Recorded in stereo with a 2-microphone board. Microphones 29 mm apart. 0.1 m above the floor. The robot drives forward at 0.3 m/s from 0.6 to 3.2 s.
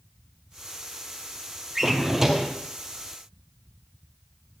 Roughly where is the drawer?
Centre.